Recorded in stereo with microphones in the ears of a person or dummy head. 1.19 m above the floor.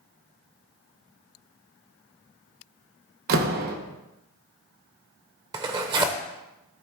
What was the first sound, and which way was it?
A door slam, 50° right (ahead or behind).